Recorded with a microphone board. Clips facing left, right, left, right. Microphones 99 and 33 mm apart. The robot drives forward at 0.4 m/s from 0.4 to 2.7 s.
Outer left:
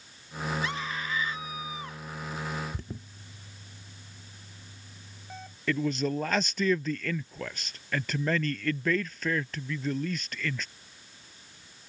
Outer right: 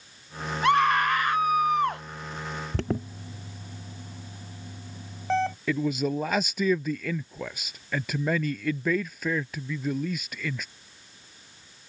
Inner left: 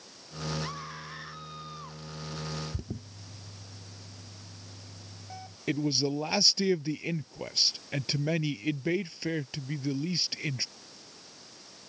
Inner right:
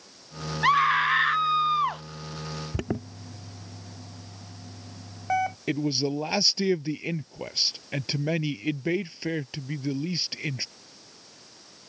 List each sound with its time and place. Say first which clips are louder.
0.6 s a scream: outer right 13 dB, inner right 19 dB; 65° right (ahead or behind)
2.7 s an alarm: outer right 13 dB, inner right 10 dB; 75° right (ahead or behind)
5.7 s a man speaking: outer left 3 dB, inner left 3 dB; 10° right (ahead or behind)